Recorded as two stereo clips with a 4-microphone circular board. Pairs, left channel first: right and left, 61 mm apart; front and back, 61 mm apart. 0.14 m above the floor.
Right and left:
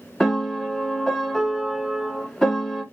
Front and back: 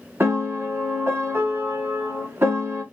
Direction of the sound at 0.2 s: 170° right.